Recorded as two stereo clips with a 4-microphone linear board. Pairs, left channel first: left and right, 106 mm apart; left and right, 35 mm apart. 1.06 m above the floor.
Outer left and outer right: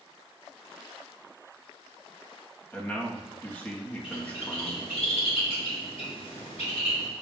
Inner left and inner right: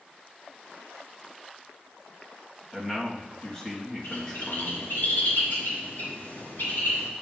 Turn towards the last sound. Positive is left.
turn(degrees=75)  # may be behind; listen again after turning